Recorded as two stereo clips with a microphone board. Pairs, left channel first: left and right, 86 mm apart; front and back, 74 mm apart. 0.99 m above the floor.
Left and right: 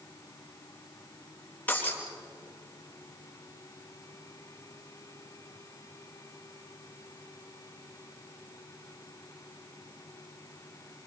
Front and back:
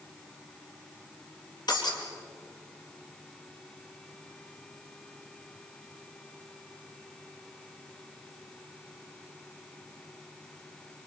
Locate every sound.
1.7 s breaking glass: 20° left, 4.5 m